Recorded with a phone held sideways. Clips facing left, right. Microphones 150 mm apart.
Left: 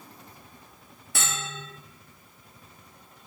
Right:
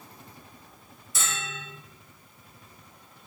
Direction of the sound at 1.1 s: 65° left (ahead or behind).